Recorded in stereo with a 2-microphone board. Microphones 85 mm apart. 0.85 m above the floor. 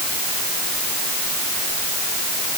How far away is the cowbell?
I don't hear a cowbell.